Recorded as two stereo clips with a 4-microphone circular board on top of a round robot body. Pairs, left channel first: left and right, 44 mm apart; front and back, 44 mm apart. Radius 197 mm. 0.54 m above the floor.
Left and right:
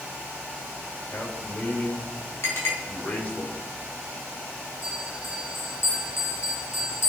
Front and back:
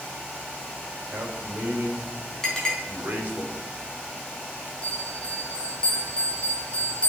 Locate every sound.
1.1 s a man speaking: 135° left, 3 m
2.4 s a clink: 80° left, 3.5 m
4.8 s a bell: 70° left, 4 m